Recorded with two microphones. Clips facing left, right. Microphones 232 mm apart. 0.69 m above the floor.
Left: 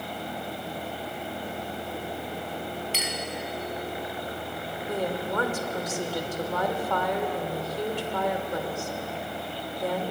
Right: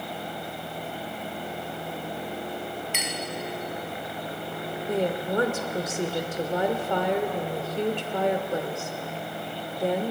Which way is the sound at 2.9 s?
40° left (ahead or behind).